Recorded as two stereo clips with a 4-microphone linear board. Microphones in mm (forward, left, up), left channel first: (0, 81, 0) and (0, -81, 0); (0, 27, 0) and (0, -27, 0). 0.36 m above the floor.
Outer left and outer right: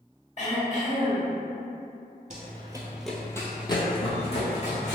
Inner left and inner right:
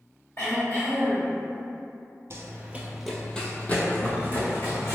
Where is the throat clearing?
50° left (ahead or behind), 1.3 m.